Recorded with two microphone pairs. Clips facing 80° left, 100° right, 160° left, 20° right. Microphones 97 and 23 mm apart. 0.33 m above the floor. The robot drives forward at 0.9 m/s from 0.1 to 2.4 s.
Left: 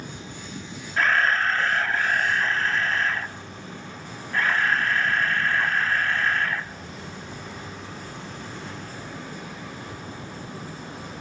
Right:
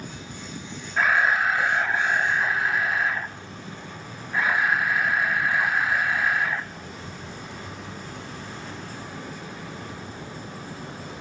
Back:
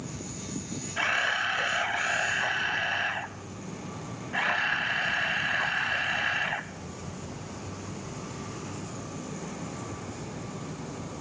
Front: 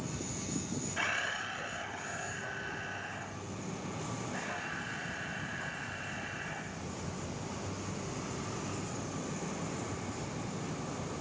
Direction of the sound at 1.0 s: 155° right.